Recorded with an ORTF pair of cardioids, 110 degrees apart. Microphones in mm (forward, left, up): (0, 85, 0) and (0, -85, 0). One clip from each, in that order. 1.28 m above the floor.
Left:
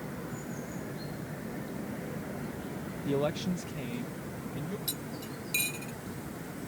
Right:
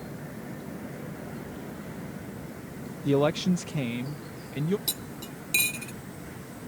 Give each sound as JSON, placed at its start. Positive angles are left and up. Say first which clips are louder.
{"t": 3.0, "sound": "a man speaking", "louder": "right 7 dB", "azimuth_deg": -30}
{"t": 4.9, "sound": "cutlery clinking", "louder": "right 3 dB", "azimuth_deg": -40}